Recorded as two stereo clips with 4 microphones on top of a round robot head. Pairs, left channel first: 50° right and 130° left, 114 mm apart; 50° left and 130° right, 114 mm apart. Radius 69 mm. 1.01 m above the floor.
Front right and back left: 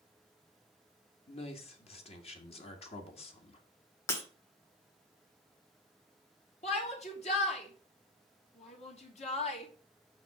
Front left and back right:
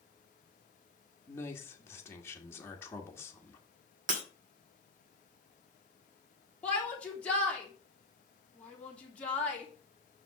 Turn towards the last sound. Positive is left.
turn(degrees=-30)